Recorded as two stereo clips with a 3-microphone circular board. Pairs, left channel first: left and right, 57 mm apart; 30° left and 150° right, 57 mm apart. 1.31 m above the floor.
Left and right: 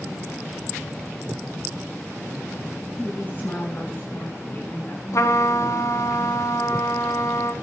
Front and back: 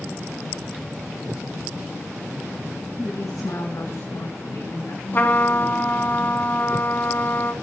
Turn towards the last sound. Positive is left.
turn(degrees=80)